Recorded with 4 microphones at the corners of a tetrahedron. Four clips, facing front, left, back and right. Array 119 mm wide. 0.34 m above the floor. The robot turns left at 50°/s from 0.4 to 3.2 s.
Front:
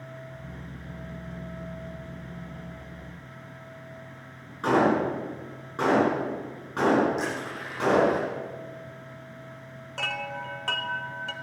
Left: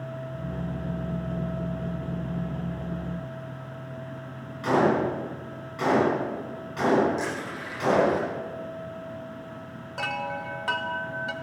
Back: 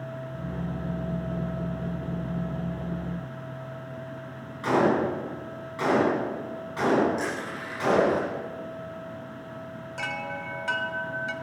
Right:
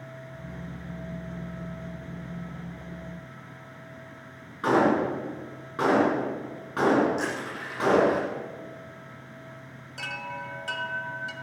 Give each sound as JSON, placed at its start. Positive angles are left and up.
{"t": 4.6, "sound": "a gunshot", "azimuth_deg": -55, "distance_m": 4.5}
{"t": 7.2, "sound": "crushing", "azimuth_deg": -40, "distance_m": 7.0}
{"t": 10.0, "sound": "a chime", "azimuth_deg": 70, "distance_m": 0.8}